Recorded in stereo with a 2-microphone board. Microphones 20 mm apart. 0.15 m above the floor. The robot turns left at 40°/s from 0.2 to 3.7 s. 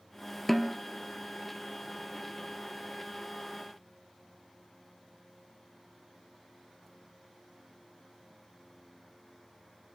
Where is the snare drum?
10° left (ahead or behind), 0.7 m; by 0.8 s centre (ahead or behind), 0.7 m.